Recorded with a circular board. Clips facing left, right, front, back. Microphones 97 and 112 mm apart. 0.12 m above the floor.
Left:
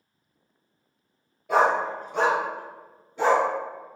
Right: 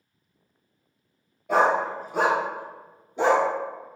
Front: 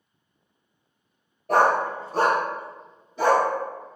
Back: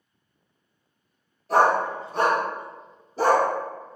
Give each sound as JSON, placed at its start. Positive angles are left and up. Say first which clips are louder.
{"t": 1.5, "sound": "a dog barking", "louder": "even, even", "azimuth_deg": 0, "distance_m": 0.9}